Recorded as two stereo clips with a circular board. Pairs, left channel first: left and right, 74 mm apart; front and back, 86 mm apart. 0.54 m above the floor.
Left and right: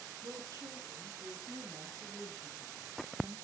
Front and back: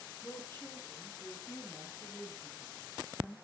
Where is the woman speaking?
65° right, 6 m; by 3.4 s 60° right, 9.5 m.